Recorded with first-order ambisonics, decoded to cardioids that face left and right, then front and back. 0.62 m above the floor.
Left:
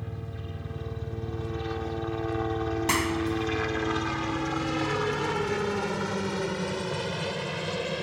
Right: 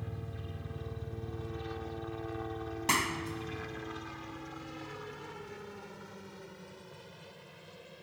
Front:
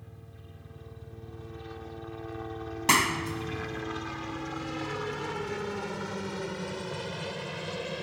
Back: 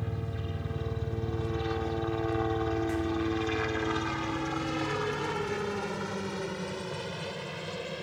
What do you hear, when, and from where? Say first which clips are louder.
0.0 s a helicopter: left 5 dB, back 15 dB; 160° left; by 8.0 s 80° left
2.9 s a clap: left 2 dB, front 6 dB; 10° left